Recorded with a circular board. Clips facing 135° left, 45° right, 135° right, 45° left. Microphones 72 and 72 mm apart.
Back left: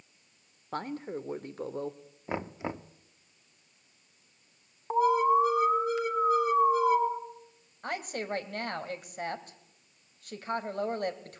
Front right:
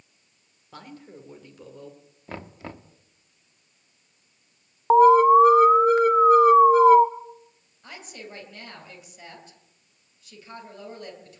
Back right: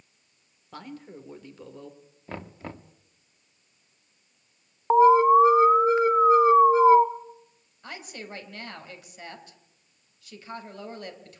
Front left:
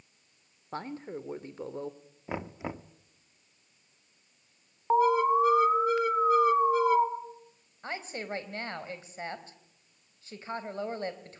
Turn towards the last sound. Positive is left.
turn(degrees=100)